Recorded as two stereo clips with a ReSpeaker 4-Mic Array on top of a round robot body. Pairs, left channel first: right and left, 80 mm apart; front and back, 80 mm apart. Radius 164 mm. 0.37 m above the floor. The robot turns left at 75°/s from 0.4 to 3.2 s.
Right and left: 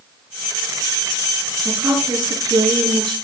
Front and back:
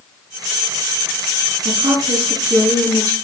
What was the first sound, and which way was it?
A woman speaking, 175° left.